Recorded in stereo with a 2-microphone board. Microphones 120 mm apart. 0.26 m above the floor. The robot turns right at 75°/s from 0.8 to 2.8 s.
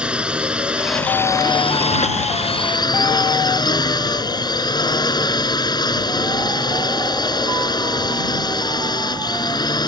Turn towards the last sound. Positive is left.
turn(degrees=140)